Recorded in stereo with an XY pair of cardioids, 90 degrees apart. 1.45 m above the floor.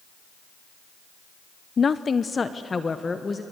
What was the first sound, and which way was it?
A woman speaking, 45° left.